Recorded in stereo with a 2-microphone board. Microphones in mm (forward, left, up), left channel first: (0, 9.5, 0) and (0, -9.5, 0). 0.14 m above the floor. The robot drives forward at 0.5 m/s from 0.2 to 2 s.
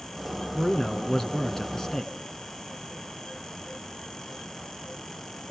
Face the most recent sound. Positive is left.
turn(degrees=35)  # may be behind; listen again after turning